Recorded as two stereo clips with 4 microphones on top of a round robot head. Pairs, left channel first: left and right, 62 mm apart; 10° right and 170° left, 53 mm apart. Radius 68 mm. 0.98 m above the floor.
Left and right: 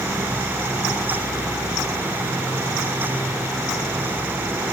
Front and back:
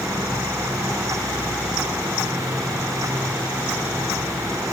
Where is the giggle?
No giggle in this recording.